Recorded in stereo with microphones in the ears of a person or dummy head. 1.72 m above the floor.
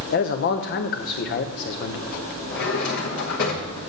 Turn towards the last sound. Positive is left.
turn(degrees=45)  # may be behind; listen again after turning